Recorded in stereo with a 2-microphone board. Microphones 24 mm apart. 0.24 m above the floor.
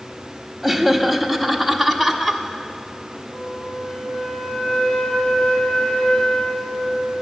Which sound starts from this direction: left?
A flute, at 3.3 s.